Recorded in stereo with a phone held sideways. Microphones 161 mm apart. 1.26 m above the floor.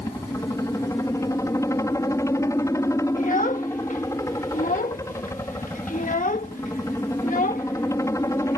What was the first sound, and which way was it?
A helicopter, 20° left (ahead or behind).